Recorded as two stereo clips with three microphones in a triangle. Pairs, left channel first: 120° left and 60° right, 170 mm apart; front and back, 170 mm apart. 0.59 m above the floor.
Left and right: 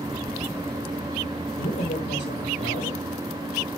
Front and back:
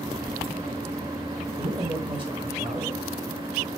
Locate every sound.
1.6 s a man speaking: 120° left, 7 m